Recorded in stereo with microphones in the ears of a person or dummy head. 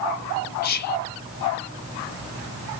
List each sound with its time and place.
0.6 s whispering: 50° left (ahead or behind), 0.5 m